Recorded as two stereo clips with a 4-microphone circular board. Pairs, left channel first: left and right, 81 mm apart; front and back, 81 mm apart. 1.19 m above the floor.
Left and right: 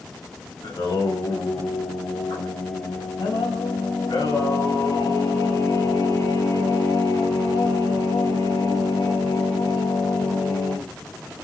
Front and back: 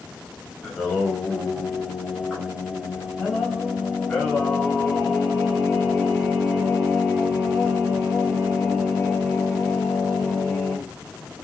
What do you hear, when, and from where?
0.6 s singing: 75° left, 5.5 m